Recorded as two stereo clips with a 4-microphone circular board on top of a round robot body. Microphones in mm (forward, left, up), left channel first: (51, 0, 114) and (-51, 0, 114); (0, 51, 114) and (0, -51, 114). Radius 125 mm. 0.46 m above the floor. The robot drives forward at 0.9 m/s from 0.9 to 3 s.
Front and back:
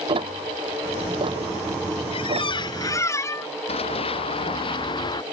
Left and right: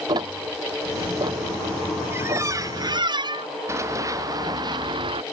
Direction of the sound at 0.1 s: 140° right.